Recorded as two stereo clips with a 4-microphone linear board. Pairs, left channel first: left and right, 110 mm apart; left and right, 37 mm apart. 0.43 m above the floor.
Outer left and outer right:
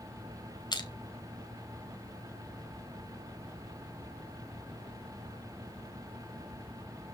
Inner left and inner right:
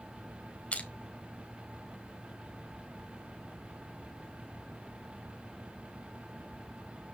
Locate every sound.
0.7 s crushing: 40° left (ahead or behind), 1.6 m